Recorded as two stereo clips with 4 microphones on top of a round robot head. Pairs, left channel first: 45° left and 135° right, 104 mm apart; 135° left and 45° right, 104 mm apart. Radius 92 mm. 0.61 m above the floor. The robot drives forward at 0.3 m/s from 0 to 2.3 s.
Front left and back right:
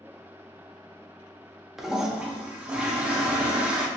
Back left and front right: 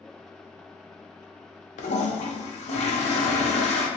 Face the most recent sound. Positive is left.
turn(degrees=150)